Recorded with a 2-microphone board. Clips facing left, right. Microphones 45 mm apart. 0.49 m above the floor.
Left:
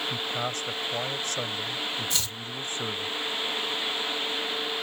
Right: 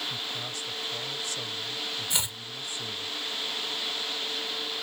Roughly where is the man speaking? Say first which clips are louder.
Left 5 dB; left.